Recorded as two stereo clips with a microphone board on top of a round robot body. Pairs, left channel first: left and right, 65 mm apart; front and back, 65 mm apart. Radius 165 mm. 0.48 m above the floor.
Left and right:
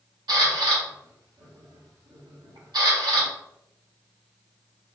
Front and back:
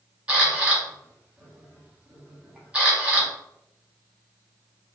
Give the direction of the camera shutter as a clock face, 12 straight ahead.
4 o'clock.